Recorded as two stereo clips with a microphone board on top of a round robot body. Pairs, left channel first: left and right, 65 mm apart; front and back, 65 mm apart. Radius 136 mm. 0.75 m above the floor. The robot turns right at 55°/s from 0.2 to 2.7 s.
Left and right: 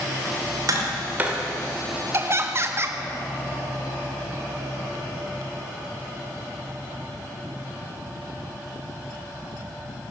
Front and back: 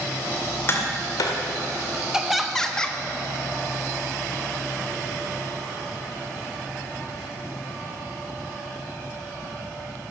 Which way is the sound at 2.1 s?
105° right.